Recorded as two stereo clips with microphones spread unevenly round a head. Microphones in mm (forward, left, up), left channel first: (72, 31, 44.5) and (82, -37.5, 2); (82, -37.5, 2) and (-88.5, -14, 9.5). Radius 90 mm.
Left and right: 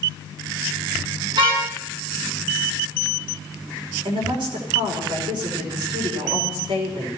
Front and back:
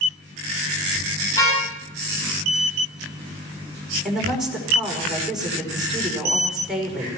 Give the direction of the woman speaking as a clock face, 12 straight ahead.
3 o'clock.